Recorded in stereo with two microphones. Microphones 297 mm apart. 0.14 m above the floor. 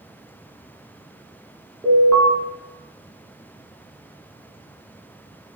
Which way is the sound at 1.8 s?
5° left (ahead or behind).